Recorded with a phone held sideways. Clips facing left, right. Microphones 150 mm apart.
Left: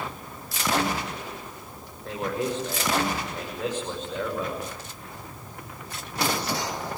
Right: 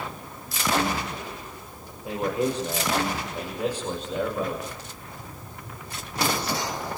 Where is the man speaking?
10° right (ahead or behind), 6.5 m.